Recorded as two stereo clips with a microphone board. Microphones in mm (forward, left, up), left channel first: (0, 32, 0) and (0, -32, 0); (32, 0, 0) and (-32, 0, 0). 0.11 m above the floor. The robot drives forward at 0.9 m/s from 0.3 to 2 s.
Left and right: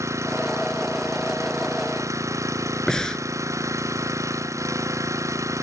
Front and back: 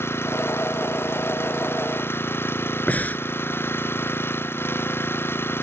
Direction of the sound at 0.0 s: 50° right.